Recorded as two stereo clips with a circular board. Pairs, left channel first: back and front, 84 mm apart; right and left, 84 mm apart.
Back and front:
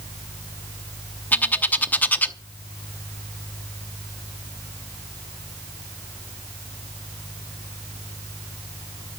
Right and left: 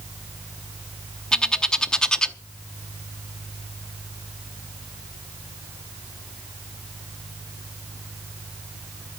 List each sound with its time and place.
1.3 s a bird: 155° right, 0.9 m